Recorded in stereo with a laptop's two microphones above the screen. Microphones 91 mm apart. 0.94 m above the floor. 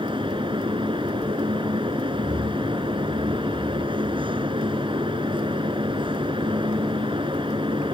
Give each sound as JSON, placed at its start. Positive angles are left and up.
{"t": 0.0, "sound": "a fan", "side_deg": -70}